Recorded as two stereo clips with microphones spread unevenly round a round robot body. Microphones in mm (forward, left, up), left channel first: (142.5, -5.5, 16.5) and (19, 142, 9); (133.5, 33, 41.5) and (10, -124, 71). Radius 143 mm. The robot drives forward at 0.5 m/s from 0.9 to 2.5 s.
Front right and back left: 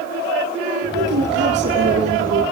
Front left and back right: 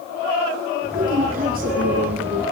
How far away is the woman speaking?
About 5 m.